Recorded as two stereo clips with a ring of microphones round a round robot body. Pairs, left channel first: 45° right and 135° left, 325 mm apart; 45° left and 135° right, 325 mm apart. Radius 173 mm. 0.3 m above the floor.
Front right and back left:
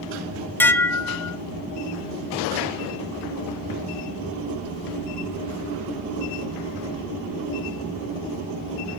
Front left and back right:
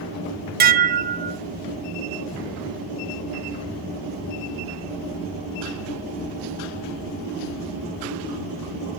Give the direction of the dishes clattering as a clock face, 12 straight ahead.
4 o'clock.